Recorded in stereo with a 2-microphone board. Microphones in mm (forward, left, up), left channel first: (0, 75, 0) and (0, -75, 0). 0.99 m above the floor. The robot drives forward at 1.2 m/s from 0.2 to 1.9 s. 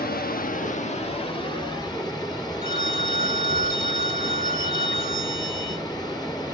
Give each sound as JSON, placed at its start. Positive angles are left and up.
{"t": 0.0, "sound": "running water", "side_deg": 80, "distance_m": 1.1}
{"t": 2.6, "sound": "a phone ringing", "side_deg": 80, "distance_m": 1.6}